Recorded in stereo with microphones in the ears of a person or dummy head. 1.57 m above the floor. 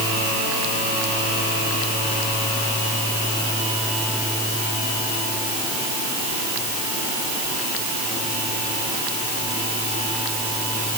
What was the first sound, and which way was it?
Only background noise.